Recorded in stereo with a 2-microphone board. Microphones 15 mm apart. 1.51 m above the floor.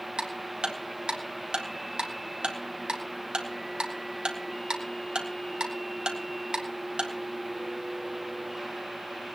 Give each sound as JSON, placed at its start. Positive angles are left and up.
{"t": 0.2, "sound": "ticking", "side_deg": -75, "distance_m": 3.0}